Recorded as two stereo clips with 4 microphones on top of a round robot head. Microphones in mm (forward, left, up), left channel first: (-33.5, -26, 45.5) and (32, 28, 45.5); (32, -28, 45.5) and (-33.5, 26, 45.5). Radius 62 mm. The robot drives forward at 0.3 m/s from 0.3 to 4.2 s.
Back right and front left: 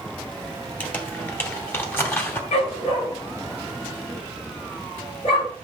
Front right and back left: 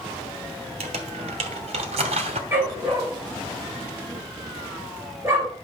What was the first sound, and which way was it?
Crumpling, 150° left.